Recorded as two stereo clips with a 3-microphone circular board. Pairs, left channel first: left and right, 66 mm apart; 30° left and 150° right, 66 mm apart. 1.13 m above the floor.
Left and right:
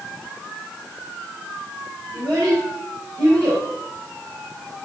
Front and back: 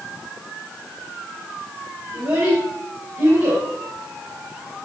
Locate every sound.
2.1 s a child speaking: 130° right, 4.5 m